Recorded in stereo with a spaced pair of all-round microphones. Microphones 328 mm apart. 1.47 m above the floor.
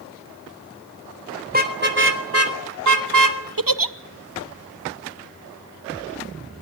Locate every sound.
1.5 s a car horn: 25° right (ahead or behind), 3.5 m; by 3.4 s 75° right (ahead or behind), 2.5 m
3.6 s a giggle: 85° right, 0.8 m